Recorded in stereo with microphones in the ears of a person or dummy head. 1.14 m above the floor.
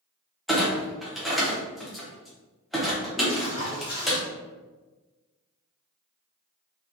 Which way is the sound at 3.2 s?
25° left (ahead or behind).